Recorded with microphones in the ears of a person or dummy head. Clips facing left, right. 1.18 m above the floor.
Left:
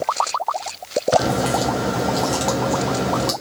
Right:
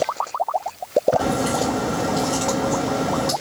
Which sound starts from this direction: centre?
A crack, at 1.2 s.